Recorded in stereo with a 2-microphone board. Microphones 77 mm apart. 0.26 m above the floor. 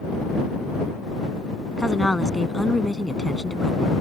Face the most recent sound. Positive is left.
turn(degrees=5)  # may be behind; listen again after turning